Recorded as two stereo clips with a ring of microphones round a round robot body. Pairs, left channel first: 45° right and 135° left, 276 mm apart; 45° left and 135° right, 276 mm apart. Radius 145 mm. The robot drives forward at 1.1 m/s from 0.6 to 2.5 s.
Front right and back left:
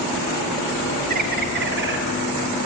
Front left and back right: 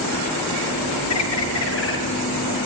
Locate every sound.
1.1 s a bird: 75° left, 4.5 m; by 2.0 s 90° left, 4 m